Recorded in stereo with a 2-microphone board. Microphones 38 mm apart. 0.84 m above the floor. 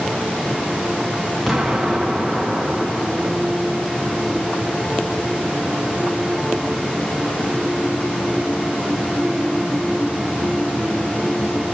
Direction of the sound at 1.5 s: Centre (ahead or behind).